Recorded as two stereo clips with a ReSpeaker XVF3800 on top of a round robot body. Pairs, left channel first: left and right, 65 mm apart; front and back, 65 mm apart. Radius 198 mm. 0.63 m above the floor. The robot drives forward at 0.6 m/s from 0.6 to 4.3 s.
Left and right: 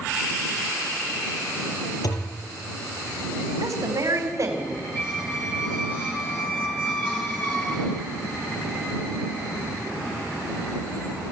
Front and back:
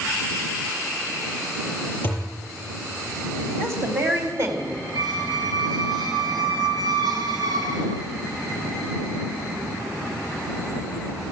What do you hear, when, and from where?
2.0 s a thud: 60° left, 7 m; by 2.4 s 65° left, 7 m
3.6 s a woman speaking: 130° right, 4 m; by 4.8 s 135° right, 4.5 m
5.0 s a squeak: 155° left, 3 m